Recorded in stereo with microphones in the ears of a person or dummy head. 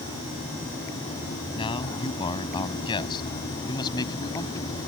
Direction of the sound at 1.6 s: 35° left (ahead or behind).